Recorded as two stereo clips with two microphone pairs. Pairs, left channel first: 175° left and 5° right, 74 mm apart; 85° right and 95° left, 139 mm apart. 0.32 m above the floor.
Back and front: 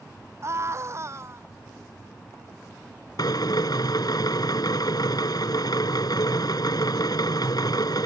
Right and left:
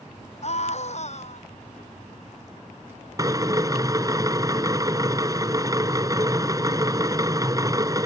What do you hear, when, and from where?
0.4 s a scream: 55° right
3.2 s a drill: 155° left